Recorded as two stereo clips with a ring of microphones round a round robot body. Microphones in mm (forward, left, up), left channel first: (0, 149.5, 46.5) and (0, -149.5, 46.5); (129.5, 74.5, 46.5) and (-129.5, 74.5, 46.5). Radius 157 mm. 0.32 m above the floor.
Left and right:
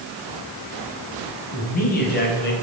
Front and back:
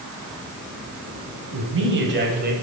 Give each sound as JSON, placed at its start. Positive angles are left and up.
{"t": 1.5, "sound": "a man speaking", "azimuth_deg": 150, "distance_m": 3.0}